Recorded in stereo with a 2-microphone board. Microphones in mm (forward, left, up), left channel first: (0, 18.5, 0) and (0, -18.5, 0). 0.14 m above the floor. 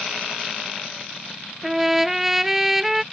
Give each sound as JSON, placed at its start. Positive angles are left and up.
{"t": 1.6, "sound": "a trumpet", "side_deg": -10}